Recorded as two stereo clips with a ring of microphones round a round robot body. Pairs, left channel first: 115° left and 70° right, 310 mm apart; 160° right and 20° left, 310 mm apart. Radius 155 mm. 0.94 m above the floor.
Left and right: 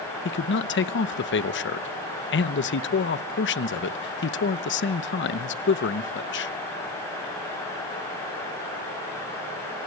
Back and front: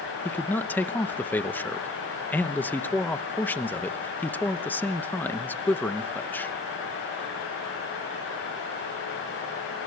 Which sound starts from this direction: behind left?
A man speaking, at 0.2 s.